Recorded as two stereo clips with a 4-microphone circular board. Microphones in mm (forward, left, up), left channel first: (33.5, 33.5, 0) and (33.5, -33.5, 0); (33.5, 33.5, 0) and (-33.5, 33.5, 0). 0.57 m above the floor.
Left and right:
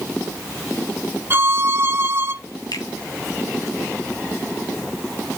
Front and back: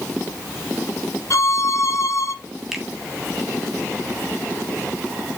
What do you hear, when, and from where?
1.3 s a violin: 35° right, 1.7 m
2.7 s a finger snap: 95° left, 3 m